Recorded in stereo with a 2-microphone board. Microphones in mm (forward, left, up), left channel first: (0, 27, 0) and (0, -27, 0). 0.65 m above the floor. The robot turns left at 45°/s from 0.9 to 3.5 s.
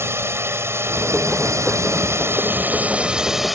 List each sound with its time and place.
0.0 s a drone: 60° right; by 3.5 s straight behind